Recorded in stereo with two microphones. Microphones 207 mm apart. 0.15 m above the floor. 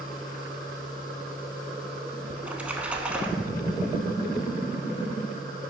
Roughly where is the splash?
Centre.